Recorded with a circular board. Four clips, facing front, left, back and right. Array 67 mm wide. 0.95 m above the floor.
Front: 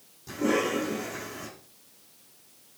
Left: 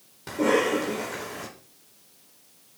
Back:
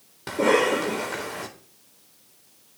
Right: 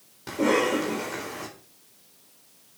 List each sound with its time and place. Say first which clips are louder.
0.3 s a cough: even, back 6 dB; straight behind, 4 m